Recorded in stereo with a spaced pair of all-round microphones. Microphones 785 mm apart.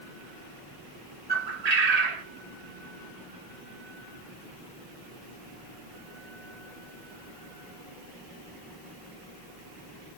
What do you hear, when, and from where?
1.3 s a bird: 55° right (ahead or behind), 1.0 m